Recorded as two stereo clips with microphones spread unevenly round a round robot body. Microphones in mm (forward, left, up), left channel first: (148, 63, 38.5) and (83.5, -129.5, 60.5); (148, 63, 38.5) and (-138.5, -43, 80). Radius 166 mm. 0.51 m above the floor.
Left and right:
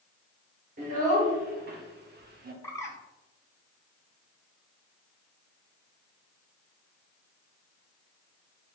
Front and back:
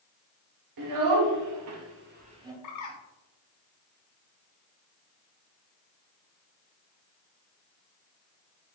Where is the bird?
5° right, 1.1 m.